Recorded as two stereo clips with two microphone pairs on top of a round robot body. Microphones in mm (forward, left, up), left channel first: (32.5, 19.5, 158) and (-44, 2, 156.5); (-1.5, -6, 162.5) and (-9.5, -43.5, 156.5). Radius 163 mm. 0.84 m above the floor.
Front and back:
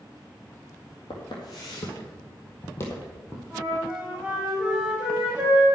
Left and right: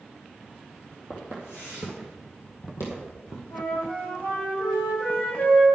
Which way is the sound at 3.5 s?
120° left.